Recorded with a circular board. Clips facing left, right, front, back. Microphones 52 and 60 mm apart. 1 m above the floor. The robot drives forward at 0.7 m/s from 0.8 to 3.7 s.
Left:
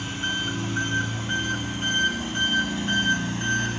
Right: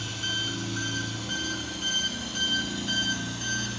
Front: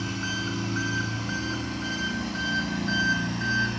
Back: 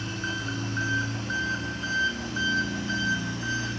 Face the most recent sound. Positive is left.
turn(degrees=35)